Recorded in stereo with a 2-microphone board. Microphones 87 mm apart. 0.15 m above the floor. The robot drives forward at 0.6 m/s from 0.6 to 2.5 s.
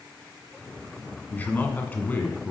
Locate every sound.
1.3 s a man speaking: 20° left (ahead or behind), 1.2 m